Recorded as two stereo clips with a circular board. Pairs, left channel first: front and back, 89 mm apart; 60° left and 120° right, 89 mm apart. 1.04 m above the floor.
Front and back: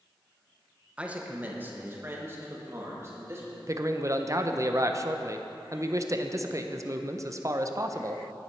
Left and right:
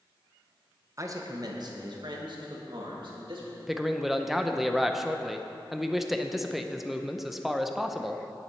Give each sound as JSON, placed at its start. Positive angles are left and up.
{"t": 1.0, "sound": "a man speaking", "azimuth_deg": -115, "distance_m": 0.9}
{"t": 3.7, "sound": "a man speaking", "azimuth_deg": 155, "distance_m": 0.6}